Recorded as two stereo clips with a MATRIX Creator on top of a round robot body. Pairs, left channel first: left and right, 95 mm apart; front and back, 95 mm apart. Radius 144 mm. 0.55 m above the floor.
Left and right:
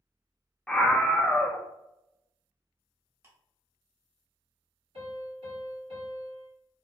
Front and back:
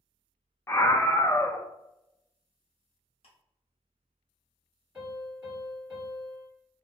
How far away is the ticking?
About 1.0 m.